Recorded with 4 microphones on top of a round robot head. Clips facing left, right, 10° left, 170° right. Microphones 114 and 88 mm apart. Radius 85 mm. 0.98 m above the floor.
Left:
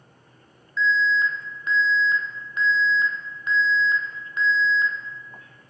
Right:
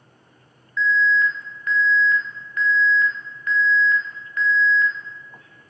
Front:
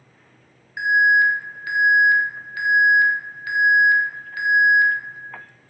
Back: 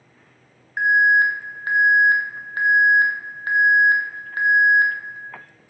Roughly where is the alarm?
Behind left.